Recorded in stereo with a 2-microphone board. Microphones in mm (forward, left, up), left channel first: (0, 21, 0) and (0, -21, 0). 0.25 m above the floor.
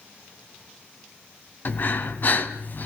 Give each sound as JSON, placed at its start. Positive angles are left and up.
{"t": 1.6, "sound": "breathing", "side_deg": 45, "distance_m": 2.5}